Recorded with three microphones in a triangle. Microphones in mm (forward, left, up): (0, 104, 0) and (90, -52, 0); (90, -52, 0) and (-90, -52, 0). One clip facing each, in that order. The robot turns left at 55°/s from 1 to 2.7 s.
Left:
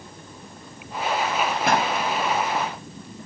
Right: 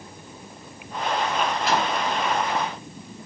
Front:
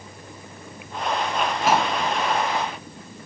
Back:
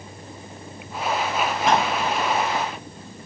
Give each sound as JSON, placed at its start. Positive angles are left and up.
{"t": 1.7, "sound": "a pop", "azimuth_deg": 85, "distance_m": 4.0}